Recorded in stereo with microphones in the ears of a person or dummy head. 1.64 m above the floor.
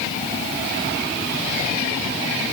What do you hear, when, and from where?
Only background noise.